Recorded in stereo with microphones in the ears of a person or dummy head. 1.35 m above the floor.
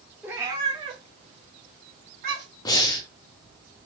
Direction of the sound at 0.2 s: 10° right (ahead or behind).